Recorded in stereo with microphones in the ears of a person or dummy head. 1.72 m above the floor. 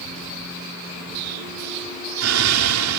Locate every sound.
1.1 s an explosion: 80° right